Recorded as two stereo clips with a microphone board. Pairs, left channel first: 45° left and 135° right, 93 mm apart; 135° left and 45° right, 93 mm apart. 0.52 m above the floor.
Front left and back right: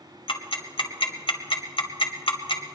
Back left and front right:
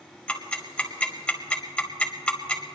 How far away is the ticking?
About 1.4 m.